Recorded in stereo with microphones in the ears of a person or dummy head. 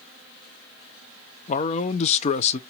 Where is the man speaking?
40° left (ahead or behind), 0.7 m.